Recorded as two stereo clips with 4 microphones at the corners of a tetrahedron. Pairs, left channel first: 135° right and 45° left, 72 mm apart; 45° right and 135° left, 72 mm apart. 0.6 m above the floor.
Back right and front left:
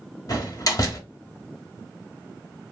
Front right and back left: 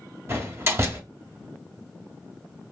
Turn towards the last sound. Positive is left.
turn(degrees=-170)